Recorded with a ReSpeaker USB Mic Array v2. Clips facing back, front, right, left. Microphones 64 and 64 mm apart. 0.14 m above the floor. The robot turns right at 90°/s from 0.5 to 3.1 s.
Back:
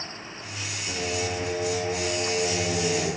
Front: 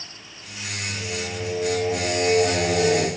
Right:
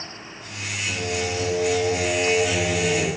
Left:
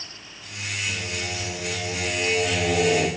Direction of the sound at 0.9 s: 150° right.